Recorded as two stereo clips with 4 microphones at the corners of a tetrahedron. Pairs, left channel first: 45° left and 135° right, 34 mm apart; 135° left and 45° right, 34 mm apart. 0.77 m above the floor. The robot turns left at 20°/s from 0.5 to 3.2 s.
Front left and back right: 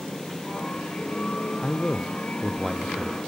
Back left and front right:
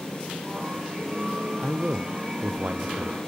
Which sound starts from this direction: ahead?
A man speaking, at 1.6 s.